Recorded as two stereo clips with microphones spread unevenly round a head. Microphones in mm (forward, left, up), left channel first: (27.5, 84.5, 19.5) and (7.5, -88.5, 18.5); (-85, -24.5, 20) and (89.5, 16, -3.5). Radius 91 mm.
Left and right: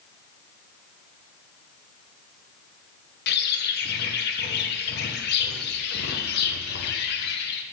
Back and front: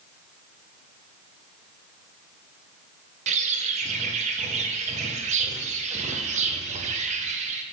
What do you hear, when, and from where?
3.3 s a bird: 65° left, 0.7 m